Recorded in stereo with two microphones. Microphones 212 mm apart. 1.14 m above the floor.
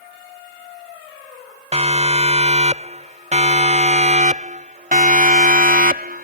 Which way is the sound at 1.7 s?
30° right (ahead or behind).